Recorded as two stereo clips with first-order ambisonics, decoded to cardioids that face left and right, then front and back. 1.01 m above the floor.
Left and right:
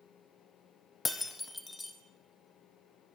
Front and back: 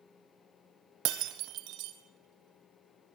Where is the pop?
No pop in this recording.